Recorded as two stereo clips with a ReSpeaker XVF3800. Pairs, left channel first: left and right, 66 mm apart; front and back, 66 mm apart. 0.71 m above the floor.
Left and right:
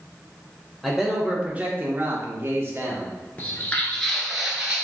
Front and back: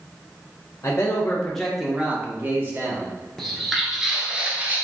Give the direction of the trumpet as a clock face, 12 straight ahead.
I don't hear a trumpet.